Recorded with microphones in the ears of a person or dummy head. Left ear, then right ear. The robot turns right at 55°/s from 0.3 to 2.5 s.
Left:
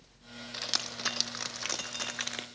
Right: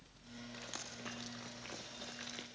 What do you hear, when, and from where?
0.5 s dripping: 35° left (ahead or behind), 1.3 m; by 2.5 s 30° left (ahead or behind), 1.3 m